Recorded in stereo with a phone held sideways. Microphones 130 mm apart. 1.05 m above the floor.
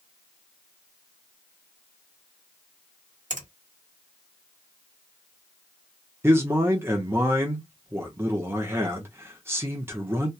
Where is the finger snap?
80° right, 1.4 m.